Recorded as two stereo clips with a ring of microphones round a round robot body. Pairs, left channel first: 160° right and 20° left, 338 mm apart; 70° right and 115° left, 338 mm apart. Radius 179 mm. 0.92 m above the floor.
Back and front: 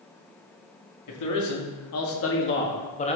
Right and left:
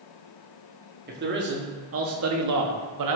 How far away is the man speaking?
About 2.5 m.